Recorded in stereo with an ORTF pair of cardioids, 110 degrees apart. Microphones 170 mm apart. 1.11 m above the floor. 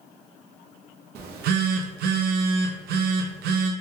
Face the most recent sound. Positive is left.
turn(degrees=-70)